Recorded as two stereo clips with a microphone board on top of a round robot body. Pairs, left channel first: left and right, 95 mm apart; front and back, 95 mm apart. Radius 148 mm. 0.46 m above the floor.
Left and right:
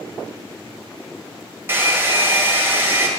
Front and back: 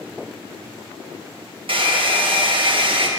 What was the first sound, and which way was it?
A hair dryer, 155° right.